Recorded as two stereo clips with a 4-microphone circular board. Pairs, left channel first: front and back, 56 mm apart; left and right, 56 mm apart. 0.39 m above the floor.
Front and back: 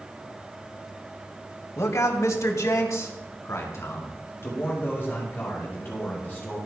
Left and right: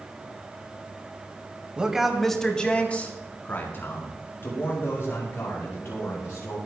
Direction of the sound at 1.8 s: 20° right.